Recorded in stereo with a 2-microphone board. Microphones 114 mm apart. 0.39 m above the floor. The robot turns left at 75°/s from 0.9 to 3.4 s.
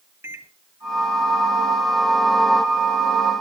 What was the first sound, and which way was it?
A microwave, 25° right (ahead or behind).